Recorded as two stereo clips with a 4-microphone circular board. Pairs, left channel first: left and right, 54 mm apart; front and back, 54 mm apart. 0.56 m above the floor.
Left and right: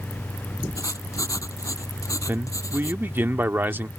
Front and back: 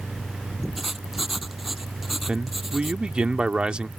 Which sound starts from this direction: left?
Writing, at 0.8 s.